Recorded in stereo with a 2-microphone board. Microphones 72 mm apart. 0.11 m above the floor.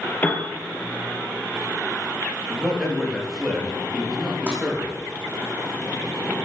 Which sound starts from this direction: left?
A piano, at 0.2 s.